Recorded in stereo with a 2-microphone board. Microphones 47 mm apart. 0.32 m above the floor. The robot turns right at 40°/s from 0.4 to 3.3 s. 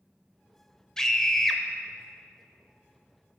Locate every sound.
1.0 s a scream: 10° left (ahead or behind), 0.9 m; by 1.6 s 5° left (ahead or behind), 0.9 m